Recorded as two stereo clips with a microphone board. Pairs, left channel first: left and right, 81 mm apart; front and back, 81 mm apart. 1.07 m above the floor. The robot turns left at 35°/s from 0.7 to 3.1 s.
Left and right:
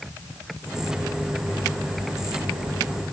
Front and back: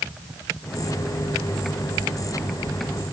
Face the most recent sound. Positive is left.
No sound to turn to.